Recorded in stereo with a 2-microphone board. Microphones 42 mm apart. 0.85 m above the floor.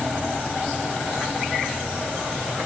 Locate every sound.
Only background noise.